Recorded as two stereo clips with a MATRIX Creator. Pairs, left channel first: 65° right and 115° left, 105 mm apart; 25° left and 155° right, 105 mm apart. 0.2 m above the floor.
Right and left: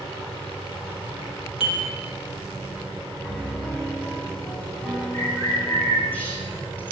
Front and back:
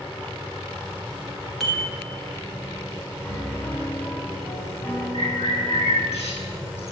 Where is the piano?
5° left, 1.5 m.